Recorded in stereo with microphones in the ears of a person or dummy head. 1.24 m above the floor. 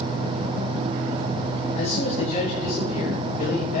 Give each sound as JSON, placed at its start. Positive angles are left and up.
{"t": 1.8, "sound": "a man speaking", "side_deg": 45, "distance_m": 8.5}